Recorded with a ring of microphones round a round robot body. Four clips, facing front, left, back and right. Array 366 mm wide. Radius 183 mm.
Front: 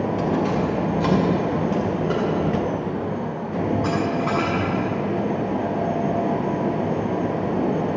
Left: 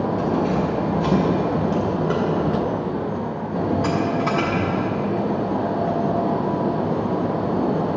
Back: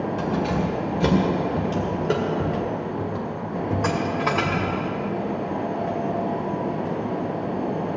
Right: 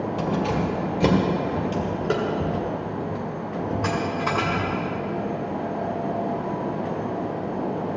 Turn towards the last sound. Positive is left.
turn(degrees=180)